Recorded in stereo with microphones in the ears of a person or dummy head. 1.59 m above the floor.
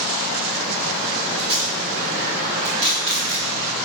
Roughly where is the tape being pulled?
Right.